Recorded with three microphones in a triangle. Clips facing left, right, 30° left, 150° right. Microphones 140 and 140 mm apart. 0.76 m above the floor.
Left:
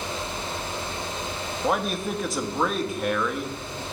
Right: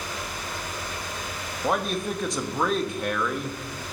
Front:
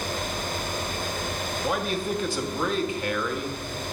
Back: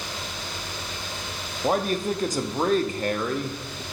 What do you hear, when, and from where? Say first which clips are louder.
1.6 s a man speaking: even, back 5 dB; straight behind, 0.7 m